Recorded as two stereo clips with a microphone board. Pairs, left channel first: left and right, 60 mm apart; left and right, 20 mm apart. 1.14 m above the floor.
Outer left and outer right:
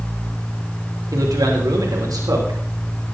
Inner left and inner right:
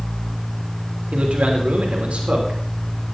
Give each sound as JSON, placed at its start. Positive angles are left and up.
{"t": 1.1, "sound": "a man speaking", "side_deg": -85, "distance_m": 3.0}